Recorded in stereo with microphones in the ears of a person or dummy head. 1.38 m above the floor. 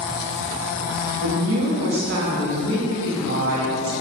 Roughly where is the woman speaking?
Right.